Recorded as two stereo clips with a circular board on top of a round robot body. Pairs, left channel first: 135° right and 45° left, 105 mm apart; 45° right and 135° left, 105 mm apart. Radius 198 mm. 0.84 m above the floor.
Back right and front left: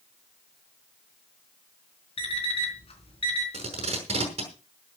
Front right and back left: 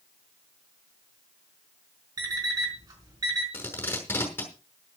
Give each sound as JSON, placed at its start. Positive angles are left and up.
{"t": 2.2, "sound": "an alarm clock", "azimuth_deg": -170, "distance_m": 4.5}
{"t": 3.5, "sound": "tape being pulled", "azimuth_deg": 30, "distance_m": 6.0}